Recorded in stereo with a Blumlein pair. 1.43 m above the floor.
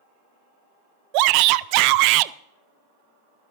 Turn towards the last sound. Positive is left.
turn(degrees=-45)